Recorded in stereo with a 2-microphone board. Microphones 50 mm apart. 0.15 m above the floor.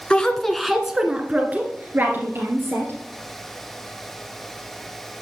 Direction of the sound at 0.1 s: 20° left (ahead or behind).